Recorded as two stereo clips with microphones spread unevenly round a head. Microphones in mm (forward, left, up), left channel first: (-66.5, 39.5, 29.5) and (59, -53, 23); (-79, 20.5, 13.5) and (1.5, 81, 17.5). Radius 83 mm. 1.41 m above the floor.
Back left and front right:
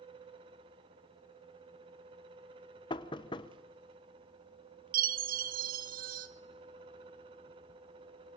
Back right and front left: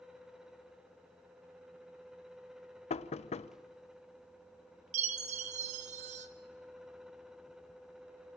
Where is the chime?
Straight ahead, 1.1 m.